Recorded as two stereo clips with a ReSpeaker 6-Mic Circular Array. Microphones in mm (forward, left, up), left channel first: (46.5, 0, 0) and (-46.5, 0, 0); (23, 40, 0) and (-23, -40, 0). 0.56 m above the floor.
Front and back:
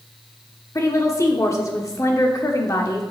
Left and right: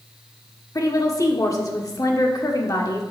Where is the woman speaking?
35° left, 1.5 m.